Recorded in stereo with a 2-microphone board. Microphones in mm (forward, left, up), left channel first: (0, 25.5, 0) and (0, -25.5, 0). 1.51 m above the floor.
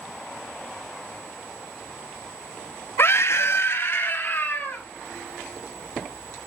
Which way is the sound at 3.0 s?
50° left (ahead or behind).